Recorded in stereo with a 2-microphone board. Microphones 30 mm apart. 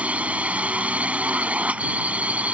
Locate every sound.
0.0 s a drone: 50° right (ahead or behind)